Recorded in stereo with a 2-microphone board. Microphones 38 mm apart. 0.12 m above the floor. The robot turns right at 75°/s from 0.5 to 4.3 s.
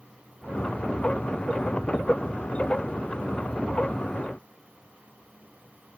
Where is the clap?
I don't hear a clap.